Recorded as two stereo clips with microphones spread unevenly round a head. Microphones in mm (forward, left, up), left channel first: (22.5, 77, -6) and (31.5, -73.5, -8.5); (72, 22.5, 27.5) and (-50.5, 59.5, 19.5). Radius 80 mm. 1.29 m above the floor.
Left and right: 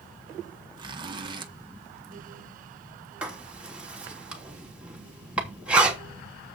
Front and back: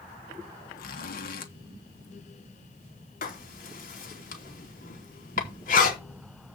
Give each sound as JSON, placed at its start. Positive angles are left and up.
{"t": 0.8, "sound": "a zipper", "azimuth_deg": -25, "distance_m": 1.3}
{"t": 3.2, "sound": "writing", "azimuth_deg": -5, "distance_m": 3.0}